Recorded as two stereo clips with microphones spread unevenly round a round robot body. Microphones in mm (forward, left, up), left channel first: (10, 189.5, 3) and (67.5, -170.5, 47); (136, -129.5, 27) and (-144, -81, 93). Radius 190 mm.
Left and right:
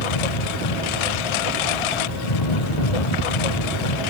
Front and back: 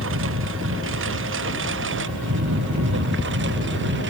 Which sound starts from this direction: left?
A lawn mower, at 0.0 s.